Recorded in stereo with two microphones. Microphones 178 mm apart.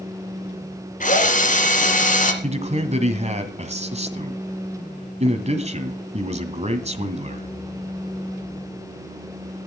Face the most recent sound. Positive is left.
turn(degrees=-40)  # may be behind; listen again after turning